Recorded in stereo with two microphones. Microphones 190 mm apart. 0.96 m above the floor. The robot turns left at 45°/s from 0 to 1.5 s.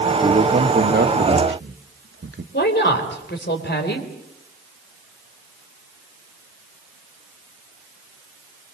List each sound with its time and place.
0.2 s a man speaking: 35° right (ahead or behind), 1.5 m; by 2.4 s 80° right, 1.5 m
2.5 s a woman speaking: 65° left (ahead or behind), 3.5 m